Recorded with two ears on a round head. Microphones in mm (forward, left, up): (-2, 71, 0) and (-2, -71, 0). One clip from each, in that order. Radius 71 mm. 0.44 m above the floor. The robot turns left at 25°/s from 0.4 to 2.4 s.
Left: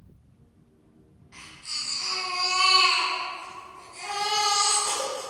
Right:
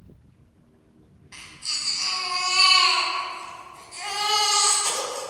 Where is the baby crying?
65° right (ahead or behind), 2 m; by 5.3 s 75° right (ahead or behind), 2 m.